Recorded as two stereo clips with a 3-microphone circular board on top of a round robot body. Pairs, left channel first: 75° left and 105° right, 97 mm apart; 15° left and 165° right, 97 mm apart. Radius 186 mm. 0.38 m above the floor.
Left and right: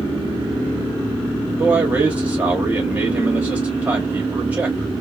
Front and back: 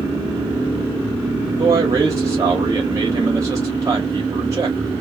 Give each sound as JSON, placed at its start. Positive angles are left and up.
{"t": 1.6, "sound": "a man speaking", "azimuth_deg": -165, "distance_m": 1.3}